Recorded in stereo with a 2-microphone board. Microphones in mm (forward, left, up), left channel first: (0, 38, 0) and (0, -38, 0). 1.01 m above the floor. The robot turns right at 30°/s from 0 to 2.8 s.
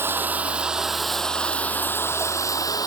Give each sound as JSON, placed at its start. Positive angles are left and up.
{"t": 0.0, "sound": "running water", "azimuth_deg": -30}